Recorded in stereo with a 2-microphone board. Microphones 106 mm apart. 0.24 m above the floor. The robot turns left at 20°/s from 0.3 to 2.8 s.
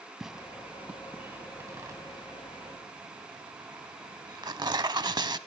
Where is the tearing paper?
5° right (ahead or behind), 0.6 m; by 5.4 s 45° right (ahead or behind), 0.6 m.